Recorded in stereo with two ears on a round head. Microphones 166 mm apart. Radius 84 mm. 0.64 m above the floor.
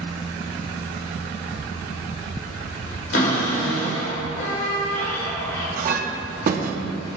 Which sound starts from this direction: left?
A cupboard door, at 3.1 s.